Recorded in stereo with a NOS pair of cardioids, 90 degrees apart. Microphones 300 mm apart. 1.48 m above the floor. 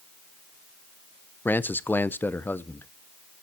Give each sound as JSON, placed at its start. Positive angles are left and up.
{"t": 1.4, "sound": "a man speaking", "azimuth_deg": 5, "distance_m": 0.8}